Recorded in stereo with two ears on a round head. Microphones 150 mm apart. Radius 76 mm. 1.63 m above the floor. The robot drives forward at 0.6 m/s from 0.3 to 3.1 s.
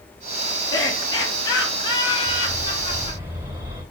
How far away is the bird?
About 3 m.